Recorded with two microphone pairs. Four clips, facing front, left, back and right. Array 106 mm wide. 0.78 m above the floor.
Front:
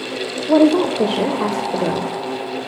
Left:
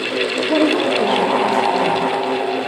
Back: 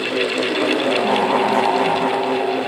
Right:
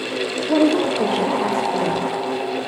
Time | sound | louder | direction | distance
0.5 | a woman speaking | even, front 10 dB | 5° left | 2.5 m